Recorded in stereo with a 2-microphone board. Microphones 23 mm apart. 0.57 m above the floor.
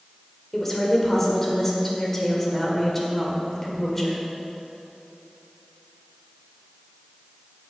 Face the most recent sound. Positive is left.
turn(degrees=10)  # may be behind; listen again after turning